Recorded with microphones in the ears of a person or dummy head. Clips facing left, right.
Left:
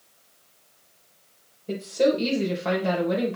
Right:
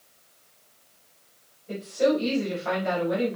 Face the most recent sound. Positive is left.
turn(degrees=60)  # may be behind; listen again after turning